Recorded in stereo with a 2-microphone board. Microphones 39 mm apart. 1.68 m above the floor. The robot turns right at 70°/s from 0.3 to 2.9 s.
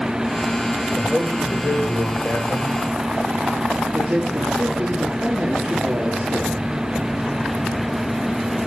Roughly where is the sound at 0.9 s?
Ahead.